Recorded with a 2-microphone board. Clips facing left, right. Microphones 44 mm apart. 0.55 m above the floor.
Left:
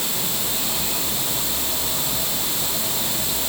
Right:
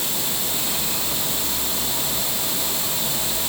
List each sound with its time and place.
Only background noise.